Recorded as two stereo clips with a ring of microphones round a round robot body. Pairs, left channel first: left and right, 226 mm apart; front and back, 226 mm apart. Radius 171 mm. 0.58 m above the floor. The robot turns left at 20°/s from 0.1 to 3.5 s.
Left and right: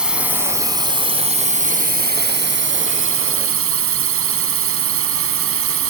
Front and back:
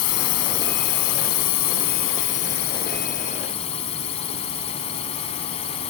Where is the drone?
5° right; by 5.9 s 70° right.